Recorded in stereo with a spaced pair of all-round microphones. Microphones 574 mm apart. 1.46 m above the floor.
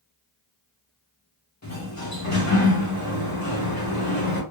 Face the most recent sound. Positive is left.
turn(degrees=30)  # may be behind; listen again after turning